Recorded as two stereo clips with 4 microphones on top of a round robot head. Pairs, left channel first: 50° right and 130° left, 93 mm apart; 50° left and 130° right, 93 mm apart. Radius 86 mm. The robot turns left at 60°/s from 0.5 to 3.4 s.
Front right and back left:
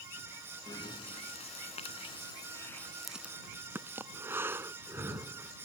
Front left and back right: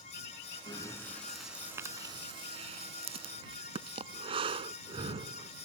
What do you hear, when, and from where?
0.7 s breathing: 5° left; by 5.5 s 160° right